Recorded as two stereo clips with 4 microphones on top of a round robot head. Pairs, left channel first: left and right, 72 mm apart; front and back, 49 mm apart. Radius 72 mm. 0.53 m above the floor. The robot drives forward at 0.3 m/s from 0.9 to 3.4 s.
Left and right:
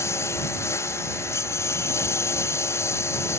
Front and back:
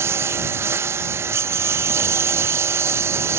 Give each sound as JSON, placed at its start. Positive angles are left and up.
{"t": 0.0, "sound": "a lawn mower", "azimuth_deg": 150}